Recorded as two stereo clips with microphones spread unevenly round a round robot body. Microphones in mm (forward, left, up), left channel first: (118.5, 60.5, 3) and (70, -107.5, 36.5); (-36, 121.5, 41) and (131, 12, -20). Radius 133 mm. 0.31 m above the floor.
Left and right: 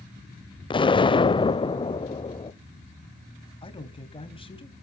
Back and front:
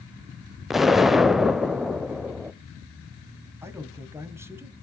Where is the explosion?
40° left, 0.7 m.